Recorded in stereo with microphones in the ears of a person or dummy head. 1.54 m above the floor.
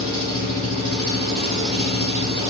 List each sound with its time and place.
0.0 s an engine running: 30° right (ahead or behind), 1.5 m